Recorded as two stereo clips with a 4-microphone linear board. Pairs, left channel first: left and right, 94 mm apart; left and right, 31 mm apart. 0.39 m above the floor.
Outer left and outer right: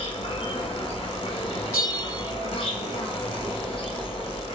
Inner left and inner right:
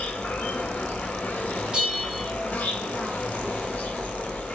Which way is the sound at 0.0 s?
80° left.